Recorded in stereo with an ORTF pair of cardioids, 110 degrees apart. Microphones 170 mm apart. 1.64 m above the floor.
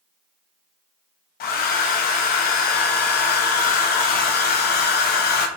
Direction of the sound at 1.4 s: 65° left.